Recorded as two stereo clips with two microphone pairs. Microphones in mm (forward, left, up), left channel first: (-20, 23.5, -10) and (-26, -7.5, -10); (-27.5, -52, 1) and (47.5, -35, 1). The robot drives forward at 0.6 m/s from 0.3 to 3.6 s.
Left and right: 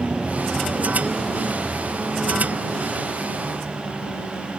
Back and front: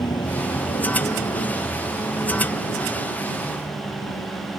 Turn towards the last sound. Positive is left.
turn(degrees=155)